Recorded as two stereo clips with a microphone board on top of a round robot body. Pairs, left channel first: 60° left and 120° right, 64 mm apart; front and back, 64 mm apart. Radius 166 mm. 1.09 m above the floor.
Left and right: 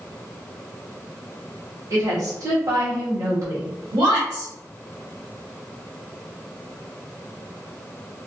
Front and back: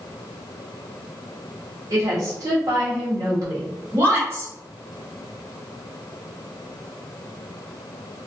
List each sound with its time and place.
1.9 s a woman speaking: 160° right, 1.1 m
3.9 s a woman speaking: 130° right, 1.1 m